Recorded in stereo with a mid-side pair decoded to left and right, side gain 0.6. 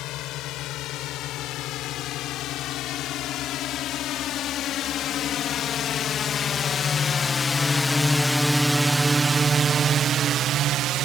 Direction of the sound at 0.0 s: 65° left.